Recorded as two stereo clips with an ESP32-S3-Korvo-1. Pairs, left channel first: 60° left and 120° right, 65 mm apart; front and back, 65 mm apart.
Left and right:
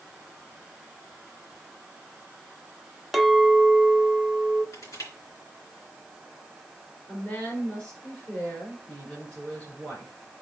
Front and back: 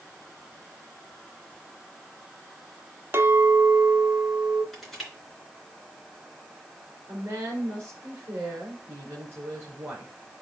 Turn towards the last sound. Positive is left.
turn(degrees=130)